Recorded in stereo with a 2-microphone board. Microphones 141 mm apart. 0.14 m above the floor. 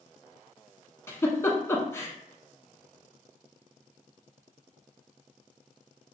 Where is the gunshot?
I don't hear a gunshot.